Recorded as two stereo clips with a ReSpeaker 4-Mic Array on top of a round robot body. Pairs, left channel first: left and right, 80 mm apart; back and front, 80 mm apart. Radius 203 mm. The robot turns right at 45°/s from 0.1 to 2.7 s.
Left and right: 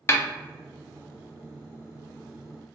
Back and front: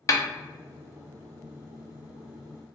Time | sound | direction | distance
0.1 | a snare drum | 140° left | 0.8 m